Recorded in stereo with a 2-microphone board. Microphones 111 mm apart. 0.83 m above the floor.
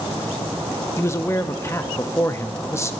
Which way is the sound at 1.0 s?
25° left (ahead or behind).